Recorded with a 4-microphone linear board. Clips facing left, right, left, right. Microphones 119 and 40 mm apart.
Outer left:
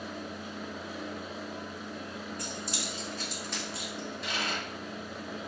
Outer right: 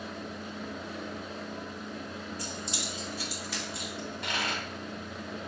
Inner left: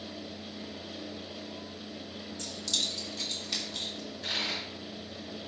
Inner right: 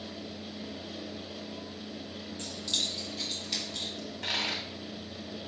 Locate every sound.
2.4 s keys jangling: 35° right (ahead or behind), 2 m; by 3.9 s centre (ahead or behind), 3 m
4.0 s a dropped coin: 65° right (ahead or behind), 2.5 m